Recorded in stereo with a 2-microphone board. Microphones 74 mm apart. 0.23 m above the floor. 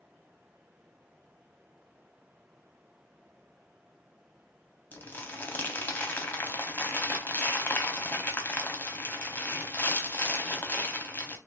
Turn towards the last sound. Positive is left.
turn(degrees=25)  # may be behind; listen again after turning